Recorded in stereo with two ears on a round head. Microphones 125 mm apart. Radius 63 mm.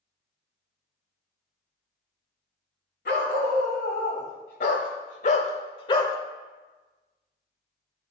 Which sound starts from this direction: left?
A dog barking, at 3.0 s.